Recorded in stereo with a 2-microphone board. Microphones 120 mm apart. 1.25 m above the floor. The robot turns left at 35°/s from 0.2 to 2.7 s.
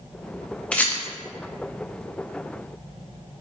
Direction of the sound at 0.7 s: 10° left (ahead or behind).